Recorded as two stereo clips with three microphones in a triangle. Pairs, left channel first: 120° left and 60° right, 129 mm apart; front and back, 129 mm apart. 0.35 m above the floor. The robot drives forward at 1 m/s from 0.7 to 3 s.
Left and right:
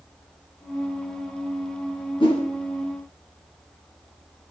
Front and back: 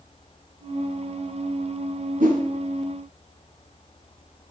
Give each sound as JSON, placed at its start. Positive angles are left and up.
{"t": 2.2, "sound": "a whoosh", "azimuth_deg": 170, "distance_m": 2.0}